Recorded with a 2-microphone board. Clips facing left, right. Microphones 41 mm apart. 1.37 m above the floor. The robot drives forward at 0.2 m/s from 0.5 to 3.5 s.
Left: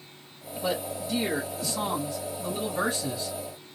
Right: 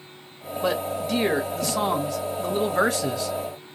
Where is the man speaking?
60° right (ahead or behind), 1.1 m; by 3.4 s 80° right, 1.0 m.